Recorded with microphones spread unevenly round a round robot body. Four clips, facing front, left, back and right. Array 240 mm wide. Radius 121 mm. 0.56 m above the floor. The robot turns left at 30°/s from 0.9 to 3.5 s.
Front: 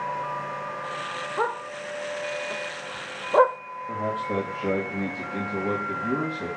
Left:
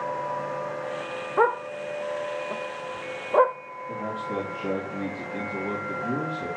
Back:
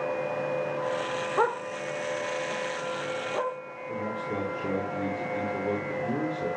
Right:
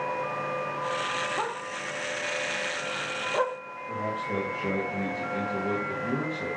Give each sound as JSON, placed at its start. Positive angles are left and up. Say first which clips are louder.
{"t": 1.4, "sound": "a dog barking", "louder": "left 9 dB, back 1 dB", "azimuth_deg": 90, "distance_m": 0.7}
{"t": 3.9, "sound": "a man speaking", "louder": "even, front 4 dB", "azimuth_deg": -5, "distance_m": 3.0}